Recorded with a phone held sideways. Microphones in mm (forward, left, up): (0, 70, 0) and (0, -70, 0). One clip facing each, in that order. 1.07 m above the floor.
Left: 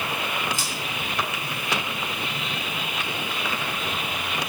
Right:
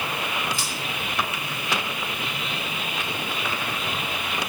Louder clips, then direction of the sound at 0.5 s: Even; 40° left (ahead or behind).